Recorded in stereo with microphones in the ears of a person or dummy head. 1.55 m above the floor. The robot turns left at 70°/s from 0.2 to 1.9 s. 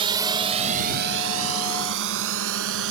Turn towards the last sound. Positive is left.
turn(degrees=-75)  # may be behind; listen again after turning